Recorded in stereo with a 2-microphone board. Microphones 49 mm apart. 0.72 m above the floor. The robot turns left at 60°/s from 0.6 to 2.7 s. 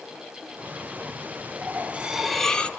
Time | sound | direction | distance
1.6 | cutlery clinking | 135° right | 0.9 m